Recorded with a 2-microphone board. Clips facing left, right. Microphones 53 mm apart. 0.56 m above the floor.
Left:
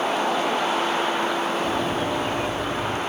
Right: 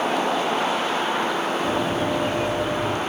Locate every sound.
1.6 s running footsteps: 10° right (ahead or behind), 5.5 m; by 3.0 s 20° right (ahead or behind), 5.5 m